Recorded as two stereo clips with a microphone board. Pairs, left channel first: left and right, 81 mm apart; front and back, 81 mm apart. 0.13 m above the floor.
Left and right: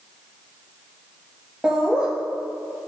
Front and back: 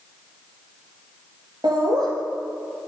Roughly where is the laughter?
Behind.